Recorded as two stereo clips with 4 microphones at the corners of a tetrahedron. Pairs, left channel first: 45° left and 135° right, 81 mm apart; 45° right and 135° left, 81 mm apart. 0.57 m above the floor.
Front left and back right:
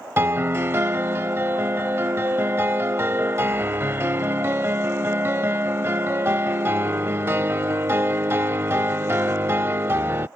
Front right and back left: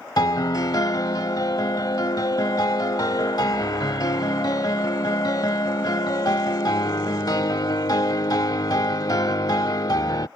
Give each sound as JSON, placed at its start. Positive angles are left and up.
{"t": 0.2, "sound": "a piano", "azimuth_deg": -75}